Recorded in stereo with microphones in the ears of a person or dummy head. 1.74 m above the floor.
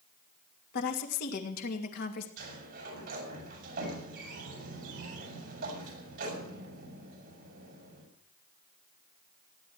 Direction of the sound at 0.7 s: 65° left (ahead or behind).